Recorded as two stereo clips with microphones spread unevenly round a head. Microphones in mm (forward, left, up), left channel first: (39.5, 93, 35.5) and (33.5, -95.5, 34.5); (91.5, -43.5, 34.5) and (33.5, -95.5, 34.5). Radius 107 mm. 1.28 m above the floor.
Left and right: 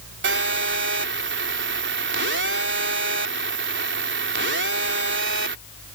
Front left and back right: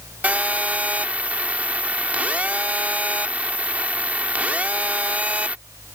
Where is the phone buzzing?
65° right.